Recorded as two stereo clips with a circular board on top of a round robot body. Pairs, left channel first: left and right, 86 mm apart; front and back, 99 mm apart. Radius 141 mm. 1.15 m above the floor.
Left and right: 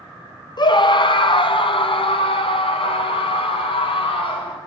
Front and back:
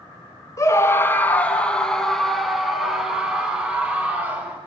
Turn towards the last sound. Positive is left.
turn(degrees=105)